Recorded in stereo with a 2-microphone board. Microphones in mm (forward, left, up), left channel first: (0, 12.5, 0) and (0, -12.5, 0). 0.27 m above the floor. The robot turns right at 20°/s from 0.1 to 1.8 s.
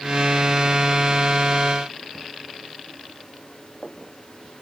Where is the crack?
No crack in this recording.